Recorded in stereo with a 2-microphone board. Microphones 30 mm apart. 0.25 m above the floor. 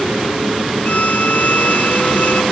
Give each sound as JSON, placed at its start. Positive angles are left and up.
{"t": 0.8, "sound": "a violin", "side_deg": 45}